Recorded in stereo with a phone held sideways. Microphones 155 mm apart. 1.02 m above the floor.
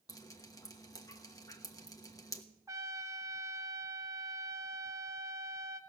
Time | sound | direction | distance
0.1 | dripping | 20° left (ahead or behind) | 1.2 m
2.7 | a trumpet | 20° right (ahead or behind) | 1.0 m